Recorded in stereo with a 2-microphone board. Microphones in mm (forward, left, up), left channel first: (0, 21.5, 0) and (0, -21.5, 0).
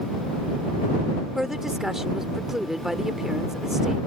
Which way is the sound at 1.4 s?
10° right (ahead or behind).